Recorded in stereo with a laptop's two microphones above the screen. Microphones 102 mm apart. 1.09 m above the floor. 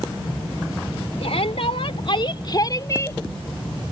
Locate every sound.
1.2 s a shout: 85° left; by 3.2 s 25° left (ahead or behind)